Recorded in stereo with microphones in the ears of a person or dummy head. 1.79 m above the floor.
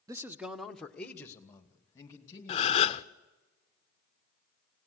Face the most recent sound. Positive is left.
turn(degrees=30)  # may be behind; listen again after turning